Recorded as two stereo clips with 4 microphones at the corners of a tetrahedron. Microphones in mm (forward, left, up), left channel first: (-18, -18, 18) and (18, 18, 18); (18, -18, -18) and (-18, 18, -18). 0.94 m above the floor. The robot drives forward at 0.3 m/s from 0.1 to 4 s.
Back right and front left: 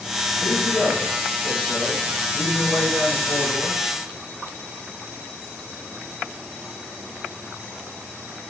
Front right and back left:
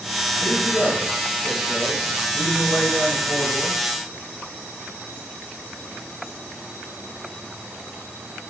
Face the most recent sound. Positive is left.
turn(degrees=-90)